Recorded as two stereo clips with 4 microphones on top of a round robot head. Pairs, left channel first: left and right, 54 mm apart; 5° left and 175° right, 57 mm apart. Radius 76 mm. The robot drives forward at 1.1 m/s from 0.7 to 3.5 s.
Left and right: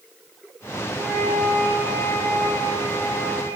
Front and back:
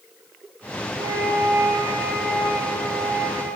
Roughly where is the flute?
Behind.